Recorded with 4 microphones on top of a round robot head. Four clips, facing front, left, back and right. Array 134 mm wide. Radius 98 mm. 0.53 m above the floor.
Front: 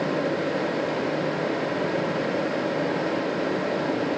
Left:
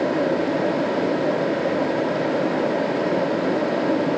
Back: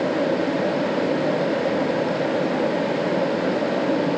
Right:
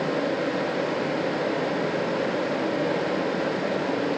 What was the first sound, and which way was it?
Only background noise.